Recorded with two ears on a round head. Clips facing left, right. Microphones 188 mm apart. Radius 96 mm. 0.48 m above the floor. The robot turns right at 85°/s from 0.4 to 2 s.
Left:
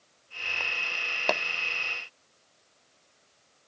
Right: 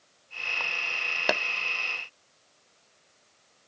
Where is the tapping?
10° right (ahead or behind); by 1.4 s centre (ahead or behind).